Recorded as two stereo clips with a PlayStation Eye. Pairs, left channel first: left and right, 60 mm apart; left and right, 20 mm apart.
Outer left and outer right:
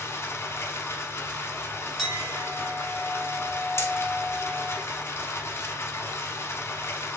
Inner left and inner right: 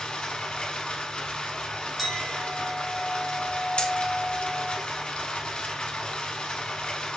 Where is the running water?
55° left (ahead or behind), 0.8 m.